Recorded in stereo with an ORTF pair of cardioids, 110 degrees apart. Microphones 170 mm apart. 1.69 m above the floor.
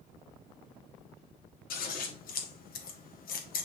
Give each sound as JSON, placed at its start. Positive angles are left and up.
{"t": 1.7, "sound": "scissors", "azimuth_deg": 60, "distance_m": 1.8}